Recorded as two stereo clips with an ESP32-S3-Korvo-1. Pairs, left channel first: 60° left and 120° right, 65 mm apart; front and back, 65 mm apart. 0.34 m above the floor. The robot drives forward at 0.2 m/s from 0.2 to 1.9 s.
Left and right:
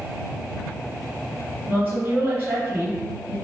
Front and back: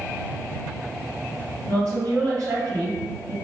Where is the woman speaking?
175° left, 1.9 m.